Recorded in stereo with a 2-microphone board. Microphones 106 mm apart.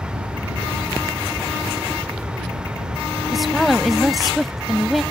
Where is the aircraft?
20° right (ahead or behind); by 5.1 s 25° right (ahead or behind).